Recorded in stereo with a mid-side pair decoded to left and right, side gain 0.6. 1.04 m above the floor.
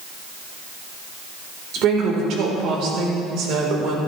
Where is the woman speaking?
65° right, 3.5 m.